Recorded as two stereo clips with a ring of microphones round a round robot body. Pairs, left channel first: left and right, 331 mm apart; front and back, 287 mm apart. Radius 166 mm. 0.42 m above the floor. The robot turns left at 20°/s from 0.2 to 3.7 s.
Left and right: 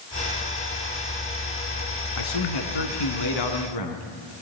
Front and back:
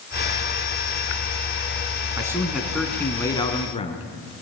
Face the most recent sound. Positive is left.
turn(degrees=70)